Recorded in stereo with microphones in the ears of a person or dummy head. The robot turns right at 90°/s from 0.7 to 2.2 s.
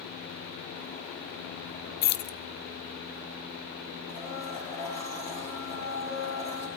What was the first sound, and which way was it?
Keys jangling, 45° left (ahead or behind).